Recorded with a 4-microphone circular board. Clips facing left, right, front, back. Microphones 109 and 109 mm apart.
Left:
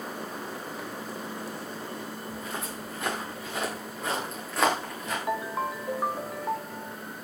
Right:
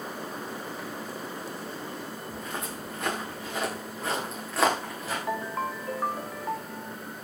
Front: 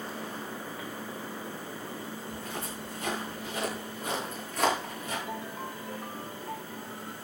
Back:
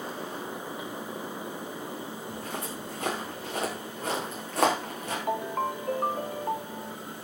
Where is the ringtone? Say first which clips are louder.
Left 1 dB, back 8 dB; 170° left, 0.7 m.